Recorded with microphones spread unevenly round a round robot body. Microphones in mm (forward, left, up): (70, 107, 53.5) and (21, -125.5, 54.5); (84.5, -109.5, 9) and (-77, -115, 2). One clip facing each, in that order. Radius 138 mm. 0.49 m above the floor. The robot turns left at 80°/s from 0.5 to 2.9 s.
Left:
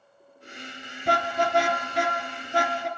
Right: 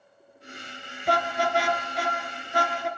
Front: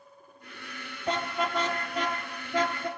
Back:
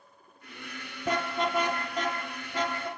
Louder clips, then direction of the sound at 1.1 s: Even, back 1 dB; 135° left.